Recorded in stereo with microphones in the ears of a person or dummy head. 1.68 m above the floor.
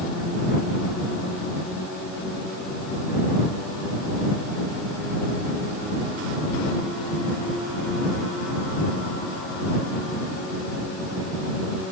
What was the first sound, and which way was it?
Only background noise.